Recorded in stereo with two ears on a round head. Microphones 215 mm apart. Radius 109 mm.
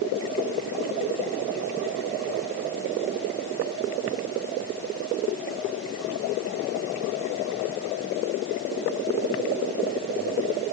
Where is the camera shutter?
I don't hear a camera shutter.